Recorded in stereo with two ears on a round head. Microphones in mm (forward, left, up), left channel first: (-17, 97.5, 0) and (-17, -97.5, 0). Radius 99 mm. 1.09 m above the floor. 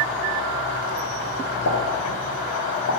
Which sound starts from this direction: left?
A pop, at 1.6 s.